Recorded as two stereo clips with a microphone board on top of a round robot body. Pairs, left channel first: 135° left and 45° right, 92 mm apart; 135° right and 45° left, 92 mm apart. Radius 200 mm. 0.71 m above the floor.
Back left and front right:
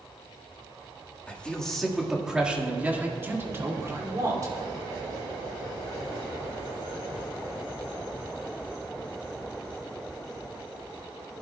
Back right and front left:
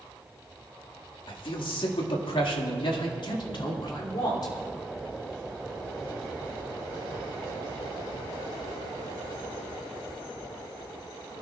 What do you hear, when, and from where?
1.3 s a man speaking: 150° right, 2.0 m; by 4.5 s 95° right, 3 m